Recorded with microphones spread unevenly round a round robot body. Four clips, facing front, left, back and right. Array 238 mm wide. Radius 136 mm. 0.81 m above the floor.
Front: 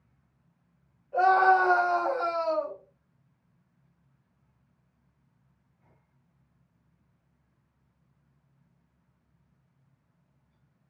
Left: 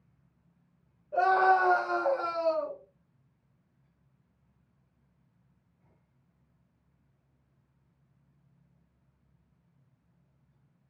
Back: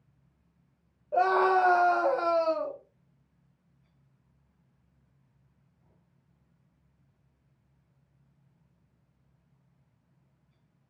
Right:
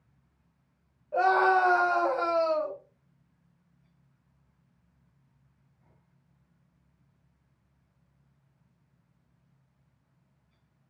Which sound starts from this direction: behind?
A scream, at 1.1 s.